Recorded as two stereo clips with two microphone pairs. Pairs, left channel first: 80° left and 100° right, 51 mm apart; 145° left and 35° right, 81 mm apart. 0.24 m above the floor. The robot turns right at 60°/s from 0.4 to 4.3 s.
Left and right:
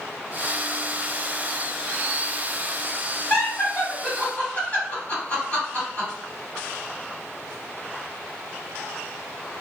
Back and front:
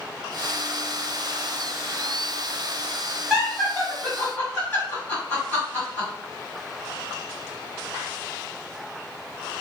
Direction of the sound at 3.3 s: 40° left.